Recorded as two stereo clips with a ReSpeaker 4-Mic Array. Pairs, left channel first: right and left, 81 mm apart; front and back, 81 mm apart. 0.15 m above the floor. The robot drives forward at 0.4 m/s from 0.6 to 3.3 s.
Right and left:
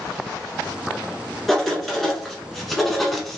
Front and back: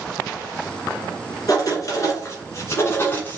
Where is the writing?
Straight ahead, 1.6 m; by 3.4 s 5° right, 1.1 m.